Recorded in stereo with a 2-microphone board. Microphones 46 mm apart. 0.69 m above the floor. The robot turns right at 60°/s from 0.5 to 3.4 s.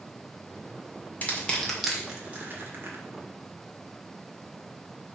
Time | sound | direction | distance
1.2 | crushing | 35° left (ahead or behind) | 1.9 m